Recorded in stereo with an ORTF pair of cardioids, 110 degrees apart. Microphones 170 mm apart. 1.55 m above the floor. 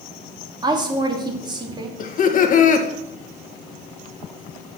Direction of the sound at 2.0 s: 50° left.